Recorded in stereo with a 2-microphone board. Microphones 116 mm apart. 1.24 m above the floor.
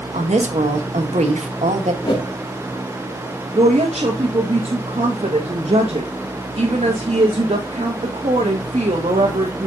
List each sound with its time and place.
0.1 s a woman speaking: 85° right, 1.7 m
2.0 s a whoosh: 45° left (ahead or behind), 2 m
3.5 s a woman speaking: 70° right (ahead or behind), 1.6 m